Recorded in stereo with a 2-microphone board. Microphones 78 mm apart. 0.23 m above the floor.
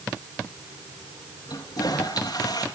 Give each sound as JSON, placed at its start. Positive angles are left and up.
{"t": 1.5, "sound": "a toilet flushing", "side_deg": 65, "distance_m": 2.5}